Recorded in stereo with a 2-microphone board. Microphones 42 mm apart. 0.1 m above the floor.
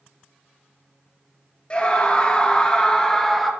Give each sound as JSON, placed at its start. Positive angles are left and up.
{"t": 1.7, "sound": "a scream", "side_deg": 25, "distance_m": 1.8}